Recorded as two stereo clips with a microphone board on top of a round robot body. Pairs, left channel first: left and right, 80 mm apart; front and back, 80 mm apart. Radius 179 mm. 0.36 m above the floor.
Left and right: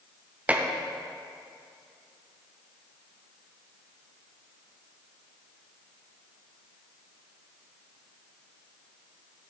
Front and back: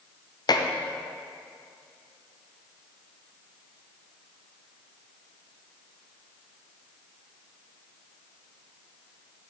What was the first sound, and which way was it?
Dishes clattering, 20° right.